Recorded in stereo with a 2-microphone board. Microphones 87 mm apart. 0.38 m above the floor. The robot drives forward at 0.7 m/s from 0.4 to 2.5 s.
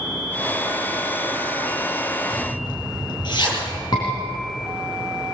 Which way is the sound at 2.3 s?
55° left (ahead or behind).